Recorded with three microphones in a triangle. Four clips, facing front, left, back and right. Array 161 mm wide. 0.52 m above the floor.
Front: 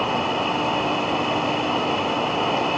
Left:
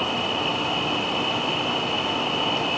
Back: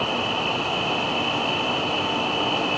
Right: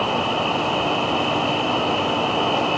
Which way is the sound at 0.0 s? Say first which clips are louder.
Right 5 dB, front 3 dB; 80° right.